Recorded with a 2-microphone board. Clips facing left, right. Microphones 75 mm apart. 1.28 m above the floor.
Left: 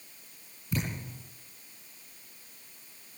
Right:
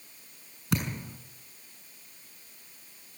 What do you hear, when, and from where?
0.7 s a thud: 80° right, 6.5 m